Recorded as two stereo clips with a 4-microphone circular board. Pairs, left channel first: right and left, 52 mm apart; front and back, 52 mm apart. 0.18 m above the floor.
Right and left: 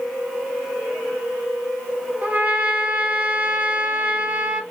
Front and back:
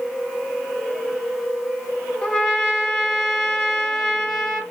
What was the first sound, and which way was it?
A trumpet, 70° left.